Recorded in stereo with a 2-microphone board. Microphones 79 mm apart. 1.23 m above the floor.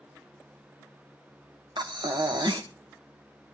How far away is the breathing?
About 1.6 m.